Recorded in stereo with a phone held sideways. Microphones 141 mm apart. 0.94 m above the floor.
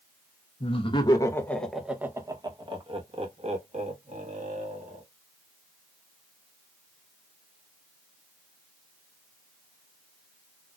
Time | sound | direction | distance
0.6 | laughter | 45° left (ahead or behind) | 0.9 m